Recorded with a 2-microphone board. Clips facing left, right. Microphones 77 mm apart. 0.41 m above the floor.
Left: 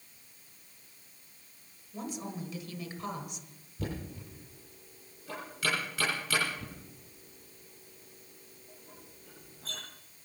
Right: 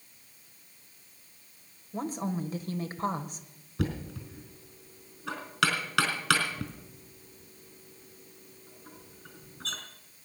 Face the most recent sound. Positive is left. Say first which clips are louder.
# right 5 dB
turn(degrees=-75)  # may be behind; listen again after turning